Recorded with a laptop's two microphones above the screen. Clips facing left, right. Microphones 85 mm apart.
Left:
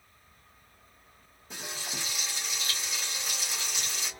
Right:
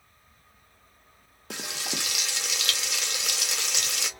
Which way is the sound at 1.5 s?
80° right.